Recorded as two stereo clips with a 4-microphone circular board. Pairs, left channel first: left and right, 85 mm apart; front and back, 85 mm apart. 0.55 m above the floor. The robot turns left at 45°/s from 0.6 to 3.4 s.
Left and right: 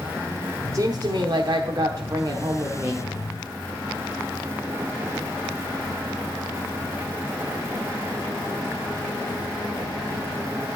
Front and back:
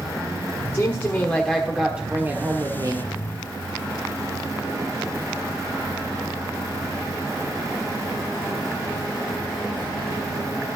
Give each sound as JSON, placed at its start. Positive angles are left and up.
{"t": 0.7, "sound": "a woman speaking", "azimuth_deg": -55, "distance_m": 1.2}